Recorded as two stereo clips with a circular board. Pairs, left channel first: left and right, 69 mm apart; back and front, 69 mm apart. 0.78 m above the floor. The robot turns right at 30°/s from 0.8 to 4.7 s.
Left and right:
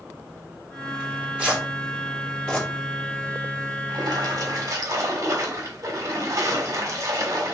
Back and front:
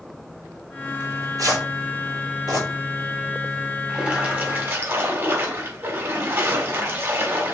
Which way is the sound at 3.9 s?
75° right.